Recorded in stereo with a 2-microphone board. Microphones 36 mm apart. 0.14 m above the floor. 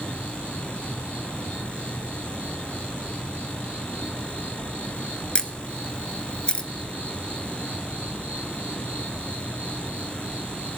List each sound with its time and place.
0.0 s an insect: 70° right (ahead or behind), 8.5 m
5.3 s a camera shutter: 30° left (ahead or behind), 0.6 m